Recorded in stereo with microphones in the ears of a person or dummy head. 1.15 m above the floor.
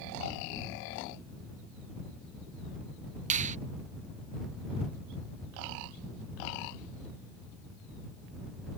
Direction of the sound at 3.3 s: 35° right (ahead or behind).